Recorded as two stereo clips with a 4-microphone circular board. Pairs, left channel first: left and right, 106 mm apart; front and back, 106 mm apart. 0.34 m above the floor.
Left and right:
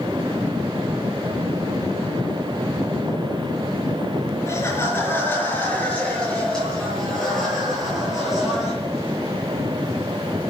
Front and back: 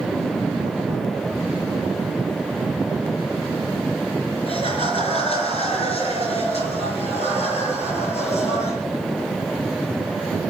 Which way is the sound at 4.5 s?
25° left.